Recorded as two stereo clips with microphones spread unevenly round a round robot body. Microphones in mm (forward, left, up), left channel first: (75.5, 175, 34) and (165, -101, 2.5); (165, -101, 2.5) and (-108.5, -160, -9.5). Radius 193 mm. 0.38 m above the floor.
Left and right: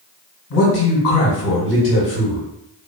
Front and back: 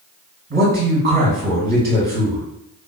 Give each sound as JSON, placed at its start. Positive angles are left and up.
{"t": 0.5, "sound": "a man speaking", "azimuth_deg": 145, "distance_m": 1.5}